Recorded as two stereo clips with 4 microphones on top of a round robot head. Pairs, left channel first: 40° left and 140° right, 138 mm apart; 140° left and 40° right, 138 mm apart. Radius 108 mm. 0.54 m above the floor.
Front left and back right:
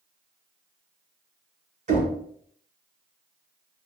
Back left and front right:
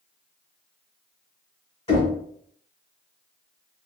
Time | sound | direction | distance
1.9 | knocking | 170° right | 1.5 m